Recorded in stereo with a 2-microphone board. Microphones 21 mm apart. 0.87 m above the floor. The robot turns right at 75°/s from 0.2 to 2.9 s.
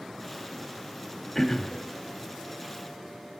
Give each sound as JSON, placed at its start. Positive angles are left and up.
{"t": 1.4, "sound": "throat clearing", "azimuth_deg": 10, "distance_m": 0.6}